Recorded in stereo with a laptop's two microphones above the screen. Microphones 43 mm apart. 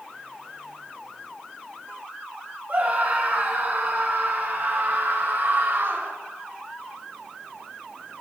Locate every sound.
2.7 s a scream: 40° right (ahead or behind), 8 m; by 6.2 s 60° right (ahead or behind), 5.5 m